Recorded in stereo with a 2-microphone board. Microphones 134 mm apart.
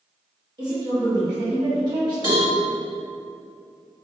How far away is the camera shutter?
I don't hear a camera shutter.